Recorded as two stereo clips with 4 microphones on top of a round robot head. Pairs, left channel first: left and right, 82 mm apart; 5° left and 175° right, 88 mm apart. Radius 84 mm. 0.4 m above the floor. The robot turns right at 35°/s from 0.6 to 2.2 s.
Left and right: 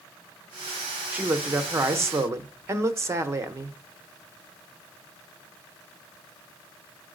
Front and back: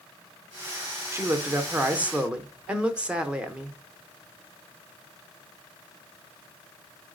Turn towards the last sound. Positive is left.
turn(degrees=-105)